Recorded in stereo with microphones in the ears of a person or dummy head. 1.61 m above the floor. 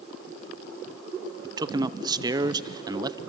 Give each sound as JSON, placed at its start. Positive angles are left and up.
{"t": 1.4, "sound": "a man speaking", "side_deg": -15, "distance_m": 0.7}